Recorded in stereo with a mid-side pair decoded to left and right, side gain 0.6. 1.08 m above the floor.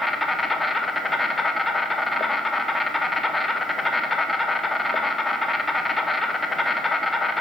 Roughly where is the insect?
Ahead.